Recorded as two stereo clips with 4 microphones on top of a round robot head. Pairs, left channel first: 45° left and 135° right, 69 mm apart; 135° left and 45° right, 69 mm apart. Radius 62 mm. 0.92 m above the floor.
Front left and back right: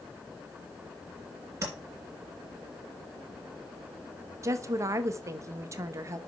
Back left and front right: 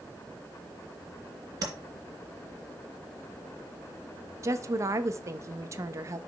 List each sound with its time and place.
1.6 s tapping: 80° right, 2.5 m
4.4 s a woman speaking: 90° right, 0.8 m